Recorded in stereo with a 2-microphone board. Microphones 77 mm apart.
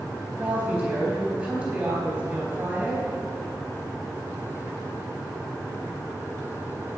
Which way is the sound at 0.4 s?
15° right (ahead or behind).